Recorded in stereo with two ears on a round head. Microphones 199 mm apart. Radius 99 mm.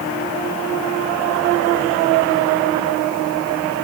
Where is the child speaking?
I don't hear a child speaking.